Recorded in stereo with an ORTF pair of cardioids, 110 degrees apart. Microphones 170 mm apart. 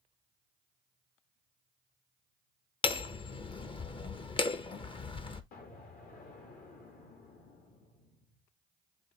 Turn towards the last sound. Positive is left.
turn(degrees=60)